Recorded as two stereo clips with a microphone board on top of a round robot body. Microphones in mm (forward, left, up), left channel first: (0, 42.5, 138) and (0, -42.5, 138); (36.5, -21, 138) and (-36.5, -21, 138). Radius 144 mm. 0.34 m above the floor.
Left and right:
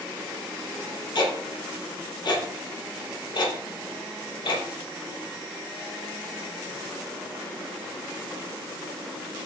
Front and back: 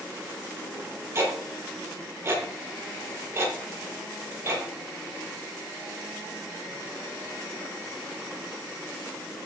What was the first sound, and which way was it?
Ticking, 125° left.